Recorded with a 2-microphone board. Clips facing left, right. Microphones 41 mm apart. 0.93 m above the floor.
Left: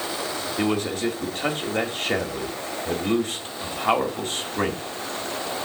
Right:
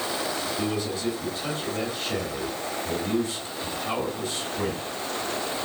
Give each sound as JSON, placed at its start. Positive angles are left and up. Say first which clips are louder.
{"t": 0.6, "sound": "a man speaking", "louder": "left 8 dB", "side_deg": 55, "distance_m": 1.6}